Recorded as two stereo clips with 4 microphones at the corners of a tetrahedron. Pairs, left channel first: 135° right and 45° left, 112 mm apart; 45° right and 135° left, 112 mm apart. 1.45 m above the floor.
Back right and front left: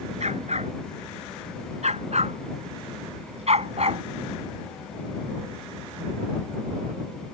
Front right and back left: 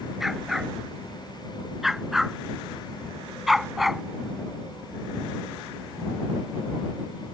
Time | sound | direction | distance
0.2 | a dog barking | 50° left | ?